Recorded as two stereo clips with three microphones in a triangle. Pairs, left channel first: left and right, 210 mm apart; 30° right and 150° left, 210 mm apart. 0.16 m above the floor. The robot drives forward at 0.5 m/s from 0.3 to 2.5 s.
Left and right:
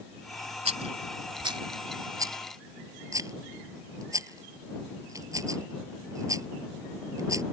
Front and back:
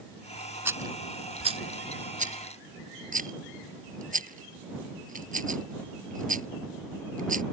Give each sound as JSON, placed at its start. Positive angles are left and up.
{"t": 0.7, "sound": "a rattle", "azimuth_deg": -135}